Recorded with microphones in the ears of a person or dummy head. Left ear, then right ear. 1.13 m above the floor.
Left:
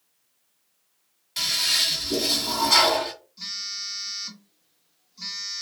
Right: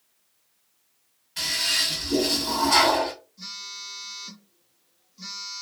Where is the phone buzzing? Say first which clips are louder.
Left 5 dB; 45° left (ahead or behind), 1.5 m.